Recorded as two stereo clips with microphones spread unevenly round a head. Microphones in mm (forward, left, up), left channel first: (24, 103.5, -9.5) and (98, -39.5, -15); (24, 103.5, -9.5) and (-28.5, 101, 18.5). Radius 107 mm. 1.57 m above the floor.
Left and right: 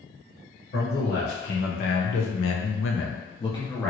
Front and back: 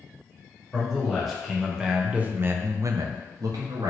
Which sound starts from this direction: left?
A man speaking, at 0.7 s.